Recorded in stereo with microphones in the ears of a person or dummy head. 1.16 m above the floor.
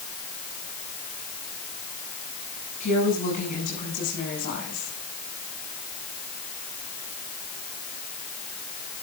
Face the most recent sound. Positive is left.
turn(degrees=45)  # may be behind; listen again after turning